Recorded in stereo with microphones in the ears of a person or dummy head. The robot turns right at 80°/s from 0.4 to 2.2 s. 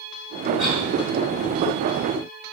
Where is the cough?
35° left (ahead or behind), 3 m; by 0.8 s 10° left (ahead or behind), 3 m.